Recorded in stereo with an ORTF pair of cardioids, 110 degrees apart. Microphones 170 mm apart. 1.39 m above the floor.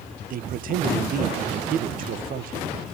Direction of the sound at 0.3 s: 55° right.